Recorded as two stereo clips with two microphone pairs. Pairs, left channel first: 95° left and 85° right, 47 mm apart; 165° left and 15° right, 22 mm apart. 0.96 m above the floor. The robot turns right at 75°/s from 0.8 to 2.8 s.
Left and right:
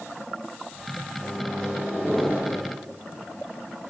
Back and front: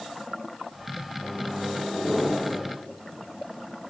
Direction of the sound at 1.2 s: 135° left.